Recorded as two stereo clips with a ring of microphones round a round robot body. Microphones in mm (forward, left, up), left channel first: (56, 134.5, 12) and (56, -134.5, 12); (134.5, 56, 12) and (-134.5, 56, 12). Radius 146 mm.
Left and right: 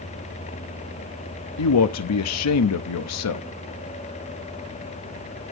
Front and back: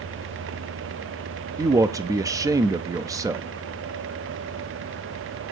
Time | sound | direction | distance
1.6 | a man speaking | 105° left | 0.7 m